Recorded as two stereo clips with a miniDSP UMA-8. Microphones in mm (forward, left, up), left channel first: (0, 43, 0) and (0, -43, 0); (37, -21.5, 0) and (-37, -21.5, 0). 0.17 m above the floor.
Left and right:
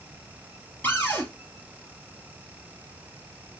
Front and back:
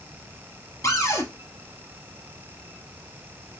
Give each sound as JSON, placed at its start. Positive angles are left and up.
{"t": 0.8, "sound": "a cupboard door", "azimuth_deg": 25, "distance_m": 1.4}